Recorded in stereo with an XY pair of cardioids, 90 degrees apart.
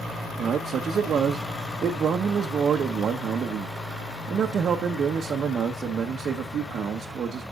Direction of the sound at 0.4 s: 65° right.